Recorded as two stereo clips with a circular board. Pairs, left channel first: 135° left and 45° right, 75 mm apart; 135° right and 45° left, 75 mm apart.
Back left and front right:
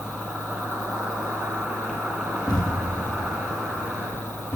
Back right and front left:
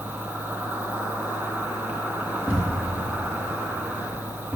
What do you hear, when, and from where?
0.0 s an insect: 25° left, 2.5 m
2.5 s a thud: 115° left, 3.5 m